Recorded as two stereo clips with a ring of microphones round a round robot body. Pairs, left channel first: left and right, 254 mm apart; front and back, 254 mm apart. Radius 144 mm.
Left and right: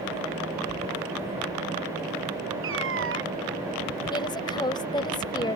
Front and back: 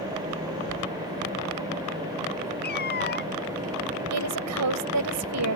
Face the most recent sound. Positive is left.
turn(degrees=165)